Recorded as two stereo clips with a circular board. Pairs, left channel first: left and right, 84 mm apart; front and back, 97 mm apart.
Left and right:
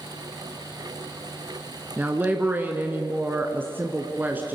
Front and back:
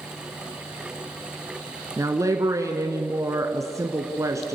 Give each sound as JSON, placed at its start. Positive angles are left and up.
{"t": 2.0, "sound": "a woman speaking", "azimuth_deg": -145, "distance_m": 1.3}